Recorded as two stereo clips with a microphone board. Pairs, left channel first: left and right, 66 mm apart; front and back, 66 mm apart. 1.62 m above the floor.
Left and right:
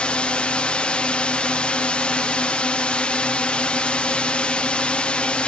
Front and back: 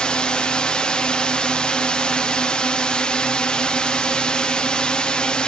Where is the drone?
50° left.